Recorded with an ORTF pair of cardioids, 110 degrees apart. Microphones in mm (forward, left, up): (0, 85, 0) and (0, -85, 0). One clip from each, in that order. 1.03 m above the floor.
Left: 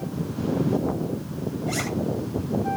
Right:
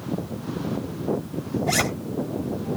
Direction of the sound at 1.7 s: 45° right.